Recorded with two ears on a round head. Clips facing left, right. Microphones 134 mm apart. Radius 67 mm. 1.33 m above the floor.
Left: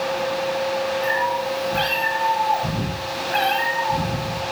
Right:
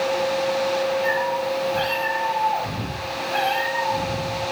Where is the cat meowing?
65° left (ahead or behind), 7.5 m.